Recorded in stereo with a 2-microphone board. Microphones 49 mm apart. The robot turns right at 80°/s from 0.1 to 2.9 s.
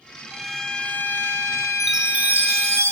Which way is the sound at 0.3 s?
10° right.